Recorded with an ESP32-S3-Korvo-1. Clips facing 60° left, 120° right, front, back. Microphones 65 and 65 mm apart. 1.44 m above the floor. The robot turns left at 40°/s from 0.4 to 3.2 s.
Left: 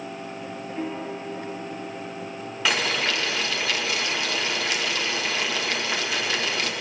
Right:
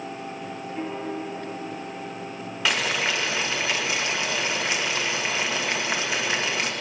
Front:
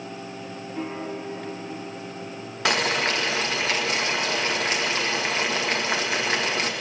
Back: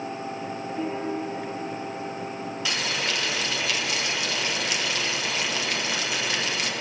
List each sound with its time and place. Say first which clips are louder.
0.8 s a piano: right 1 dB, back 2 dB; 40° right, 4.5 m; by 1.5 s 70° right, 4.5 m
2.6 s boiling: even, front 7 dB; 30° right, 1.7 m; by 6.7 s 55° right, 1.7 m